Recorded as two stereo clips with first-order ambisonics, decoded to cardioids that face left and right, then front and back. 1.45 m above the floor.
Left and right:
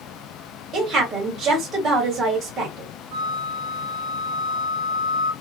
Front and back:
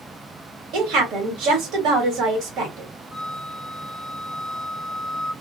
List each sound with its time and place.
0.7 s a woman speaking: 145° right, 1.7 m
3.1 s a flute: 105° right, 1.4 m